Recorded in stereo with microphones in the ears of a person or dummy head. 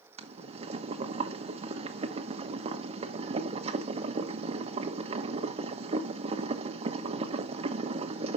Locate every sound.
0.2 s boiling: 40° right (ahead or behind), 1.3 m